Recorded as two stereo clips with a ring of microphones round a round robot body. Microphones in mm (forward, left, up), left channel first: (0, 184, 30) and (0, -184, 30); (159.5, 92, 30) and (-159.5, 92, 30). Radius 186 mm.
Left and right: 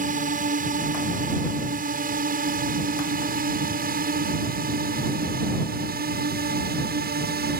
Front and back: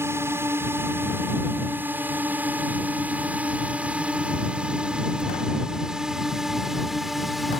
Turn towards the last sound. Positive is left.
turn(degrees=-90)